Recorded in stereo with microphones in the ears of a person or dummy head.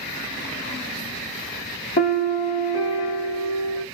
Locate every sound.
2.0 s a piano: 35° left (ahead or behind), 0.8 m